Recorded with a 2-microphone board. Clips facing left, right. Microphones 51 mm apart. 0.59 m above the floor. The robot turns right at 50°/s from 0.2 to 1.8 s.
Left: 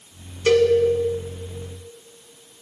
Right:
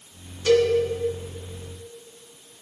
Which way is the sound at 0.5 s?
40° left (ahead or behind).